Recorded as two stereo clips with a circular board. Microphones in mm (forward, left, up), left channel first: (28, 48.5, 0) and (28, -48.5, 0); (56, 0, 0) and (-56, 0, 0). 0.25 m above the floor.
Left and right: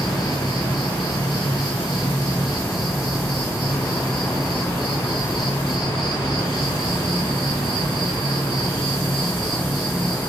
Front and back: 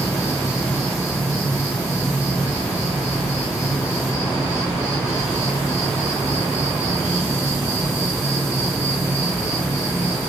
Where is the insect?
60° left, 1.1 m.